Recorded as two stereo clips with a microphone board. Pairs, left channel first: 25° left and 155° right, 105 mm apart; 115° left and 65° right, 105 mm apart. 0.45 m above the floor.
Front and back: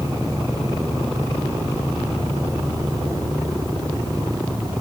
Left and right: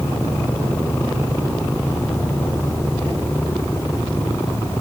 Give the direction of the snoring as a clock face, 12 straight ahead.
I don't hear snoring.